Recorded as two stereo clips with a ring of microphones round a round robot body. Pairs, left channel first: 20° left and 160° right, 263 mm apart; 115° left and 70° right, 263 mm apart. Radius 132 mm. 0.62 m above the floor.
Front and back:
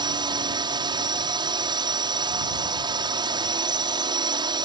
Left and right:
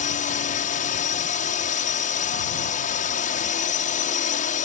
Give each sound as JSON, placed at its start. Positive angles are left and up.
{"t": 0.0, "sound": "a drone", "azimuth_deg": 145}